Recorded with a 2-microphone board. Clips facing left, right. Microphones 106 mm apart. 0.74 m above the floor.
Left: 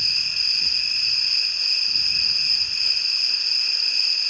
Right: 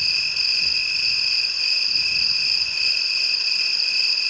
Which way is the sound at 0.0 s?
80° right.